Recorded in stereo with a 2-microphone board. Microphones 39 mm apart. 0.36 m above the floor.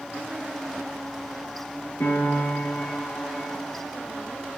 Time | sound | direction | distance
2.0 | a piano | 80° left | 5 m